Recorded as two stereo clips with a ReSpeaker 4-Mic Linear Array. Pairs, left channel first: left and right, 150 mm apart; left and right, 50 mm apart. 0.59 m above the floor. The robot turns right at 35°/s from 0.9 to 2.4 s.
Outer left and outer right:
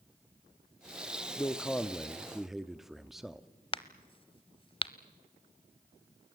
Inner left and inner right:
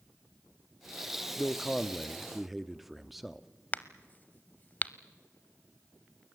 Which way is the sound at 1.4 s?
15° left (ahead or behind).